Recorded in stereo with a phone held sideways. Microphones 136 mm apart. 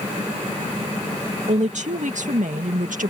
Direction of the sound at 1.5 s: 60° right (ahead or behind).